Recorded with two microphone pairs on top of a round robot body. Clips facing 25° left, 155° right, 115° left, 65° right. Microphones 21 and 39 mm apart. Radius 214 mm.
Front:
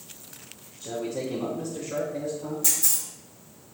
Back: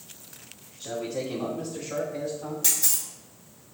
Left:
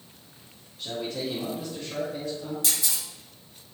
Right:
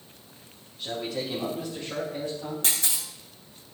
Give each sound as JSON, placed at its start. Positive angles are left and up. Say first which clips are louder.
{"t": 0.8, "sound": "a man speaking", "louder": "even, even", "azimuth_deg": -150, "distance_m": 3.5}
{"t": 2.6, "sound": "a camera shutter", "louder": "back 1 dB, right 1 dB", "azimuth_deg": -110, "distance_m": 3.5}